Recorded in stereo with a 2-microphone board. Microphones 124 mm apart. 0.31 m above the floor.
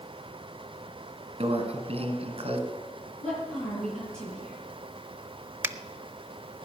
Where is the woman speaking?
5° left (ahead or behind), 8.5 m.